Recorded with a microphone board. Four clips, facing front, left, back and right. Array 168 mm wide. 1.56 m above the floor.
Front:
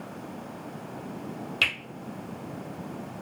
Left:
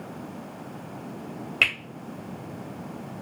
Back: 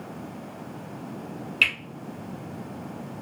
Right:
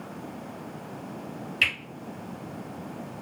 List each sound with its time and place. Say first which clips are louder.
1.6 s a finger snap: left 2 dB, back 3 dB; 65° left, 1.3 m